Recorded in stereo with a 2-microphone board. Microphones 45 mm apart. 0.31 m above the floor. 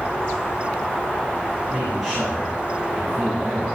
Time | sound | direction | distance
1.7 | a man speaking | centre (ahead or behind) | 5 m